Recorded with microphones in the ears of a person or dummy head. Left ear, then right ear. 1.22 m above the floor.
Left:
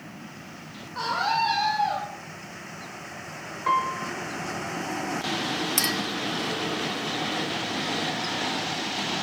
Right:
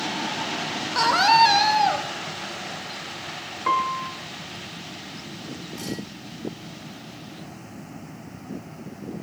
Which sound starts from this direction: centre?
A piano, at 3.7 s.